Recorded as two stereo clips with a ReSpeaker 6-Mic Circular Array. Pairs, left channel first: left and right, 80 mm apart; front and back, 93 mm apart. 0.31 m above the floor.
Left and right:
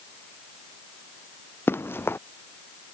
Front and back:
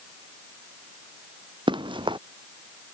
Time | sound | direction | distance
1.7 | running footsteps | 150° left | ?